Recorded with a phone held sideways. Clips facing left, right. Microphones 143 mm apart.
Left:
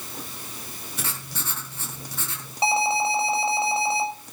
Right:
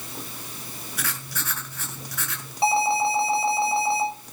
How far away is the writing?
About 3 m.